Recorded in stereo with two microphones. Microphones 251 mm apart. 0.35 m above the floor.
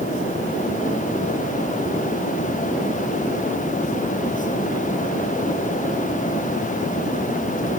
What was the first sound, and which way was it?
Only background noise.